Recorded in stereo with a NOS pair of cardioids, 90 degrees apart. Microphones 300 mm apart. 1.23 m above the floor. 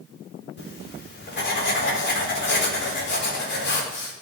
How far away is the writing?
About 4 m.